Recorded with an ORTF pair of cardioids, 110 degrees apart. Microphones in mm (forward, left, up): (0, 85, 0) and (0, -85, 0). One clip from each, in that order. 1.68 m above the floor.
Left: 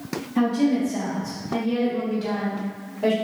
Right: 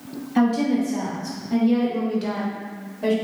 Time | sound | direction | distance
0.3 | a woman speaking | 60° right | 1.5 m